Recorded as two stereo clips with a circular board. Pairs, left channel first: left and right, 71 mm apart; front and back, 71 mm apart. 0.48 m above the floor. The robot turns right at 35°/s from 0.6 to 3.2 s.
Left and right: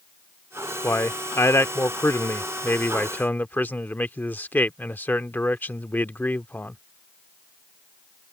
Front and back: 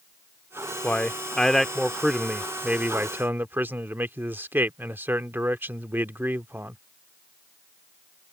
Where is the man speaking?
60° left; by 6.8 s 140° left.